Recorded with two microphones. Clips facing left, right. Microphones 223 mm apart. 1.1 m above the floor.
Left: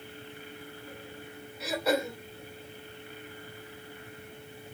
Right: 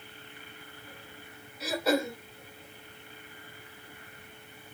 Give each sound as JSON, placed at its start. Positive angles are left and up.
{"t": 1.6, "sound": "throat clearing", "side_deg": 0, "distance_m": 2.5}